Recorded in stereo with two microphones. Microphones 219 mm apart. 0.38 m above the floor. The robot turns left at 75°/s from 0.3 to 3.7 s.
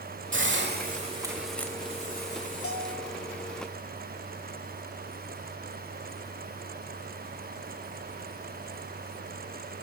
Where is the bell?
90° left, 1.3 m; by 3.1 s 55° left, 1.3 m.